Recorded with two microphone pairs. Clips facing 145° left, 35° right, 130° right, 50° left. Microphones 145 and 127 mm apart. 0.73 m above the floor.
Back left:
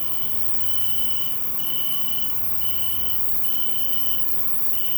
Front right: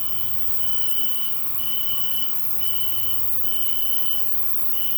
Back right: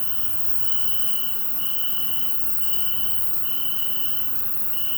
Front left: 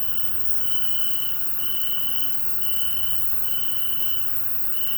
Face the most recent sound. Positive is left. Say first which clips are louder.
# back left 3 dB, back right 1 dB
turn(degrees=-120)